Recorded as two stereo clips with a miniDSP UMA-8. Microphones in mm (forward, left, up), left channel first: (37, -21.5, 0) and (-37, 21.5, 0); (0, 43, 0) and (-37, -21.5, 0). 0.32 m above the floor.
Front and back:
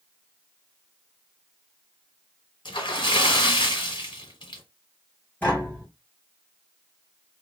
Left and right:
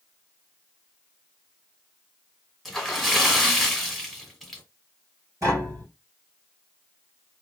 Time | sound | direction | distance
2.6 | a splash | 30° right | 1.1 m
5.4 | tapping | 95° right | 2.5 m